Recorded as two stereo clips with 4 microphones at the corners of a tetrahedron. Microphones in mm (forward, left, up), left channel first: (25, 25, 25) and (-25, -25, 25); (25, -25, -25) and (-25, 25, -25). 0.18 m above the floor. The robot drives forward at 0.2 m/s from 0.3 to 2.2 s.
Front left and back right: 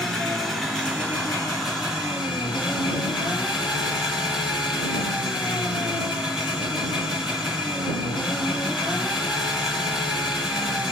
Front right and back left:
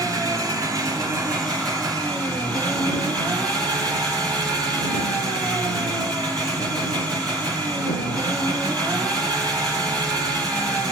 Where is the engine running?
130° left, 1.6 m; by 10.9 s 140° left, 1.8 m.